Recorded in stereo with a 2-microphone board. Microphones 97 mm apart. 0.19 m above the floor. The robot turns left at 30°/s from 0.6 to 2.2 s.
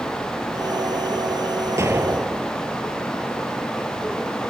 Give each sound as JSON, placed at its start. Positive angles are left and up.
{"t": 1.8, "sound": "an explosion", "side_deg": -30}